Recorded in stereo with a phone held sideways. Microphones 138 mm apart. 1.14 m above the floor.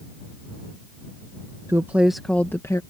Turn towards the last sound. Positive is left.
turn(degrees=25)  # may be behind; listen again after turning